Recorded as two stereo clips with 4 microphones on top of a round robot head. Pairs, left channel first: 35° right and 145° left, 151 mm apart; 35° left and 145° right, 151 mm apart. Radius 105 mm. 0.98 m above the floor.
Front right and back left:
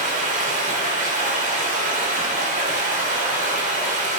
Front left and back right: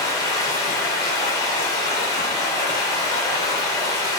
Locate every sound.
0.0 s running water: 105° left, 0.8 m